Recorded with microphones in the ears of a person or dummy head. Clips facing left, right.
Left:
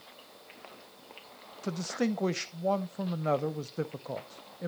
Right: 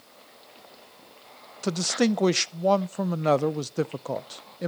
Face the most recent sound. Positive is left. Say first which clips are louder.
# right 7 dB
turn(degrees=-80)